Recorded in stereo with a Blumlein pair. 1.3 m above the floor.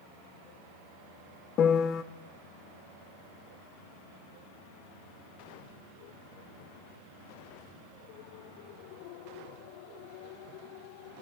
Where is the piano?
30° left, 0.7 m.